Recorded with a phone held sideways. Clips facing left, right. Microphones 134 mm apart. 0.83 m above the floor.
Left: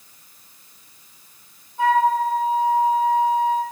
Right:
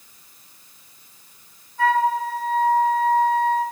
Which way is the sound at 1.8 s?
20° left (ahead or behind).